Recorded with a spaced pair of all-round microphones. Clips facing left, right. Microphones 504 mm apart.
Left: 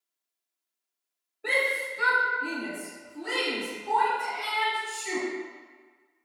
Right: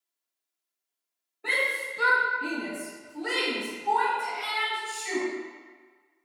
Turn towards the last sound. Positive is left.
turn(degrees=-55)  # may be behind; listen again after turning